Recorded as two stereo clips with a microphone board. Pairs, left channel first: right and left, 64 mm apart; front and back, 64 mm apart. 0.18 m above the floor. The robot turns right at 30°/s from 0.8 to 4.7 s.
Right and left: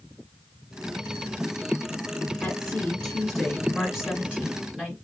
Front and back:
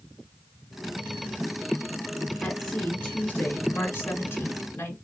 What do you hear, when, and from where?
2.4 s a woman speaking: 40° right, 1.1 m; by 5.0 s 30° left, 1.1 m